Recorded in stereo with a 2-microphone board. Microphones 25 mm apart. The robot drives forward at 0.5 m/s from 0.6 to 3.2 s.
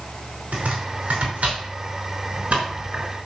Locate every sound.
0.5 s chopping: 70° right (ahead or behind), 5 m; by 3.1 s 60° right (ahead or behind), 5.5 m